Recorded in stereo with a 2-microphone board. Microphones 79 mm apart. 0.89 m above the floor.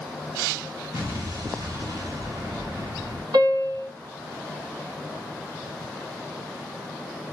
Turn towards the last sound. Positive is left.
turn(degrees=-65)  # may be behind; listen again after turning